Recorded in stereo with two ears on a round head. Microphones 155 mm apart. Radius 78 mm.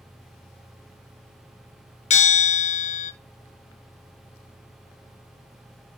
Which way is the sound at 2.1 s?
45° left (ahead or behind).